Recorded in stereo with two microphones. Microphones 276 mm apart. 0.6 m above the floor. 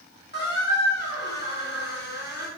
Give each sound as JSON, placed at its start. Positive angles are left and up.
{"t": 0.3, "sound": "a squeak", "side_deg": 35, "distance_m": 3.0}